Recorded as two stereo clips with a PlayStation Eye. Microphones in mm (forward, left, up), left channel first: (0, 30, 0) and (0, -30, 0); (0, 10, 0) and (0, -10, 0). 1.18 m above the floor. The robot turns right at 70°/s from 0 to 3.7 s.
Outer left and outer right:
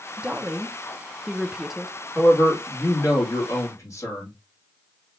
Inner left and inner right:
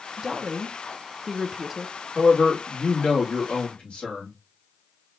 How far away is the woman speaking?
About 0.5 m.